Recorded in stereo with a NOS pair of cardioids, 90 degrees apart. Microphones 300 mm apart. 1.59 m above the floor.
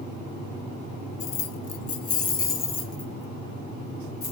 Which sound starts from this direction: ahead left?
Keys jangling, at 1.2 s.